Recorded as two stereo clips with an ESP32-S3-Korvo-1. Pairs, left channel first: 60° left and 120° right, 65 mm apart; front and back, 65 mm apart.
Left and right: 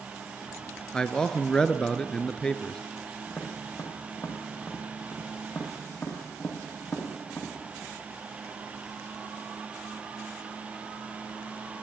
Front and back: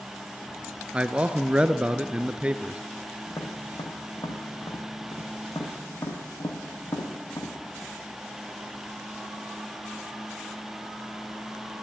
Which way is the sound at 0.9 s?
125° left.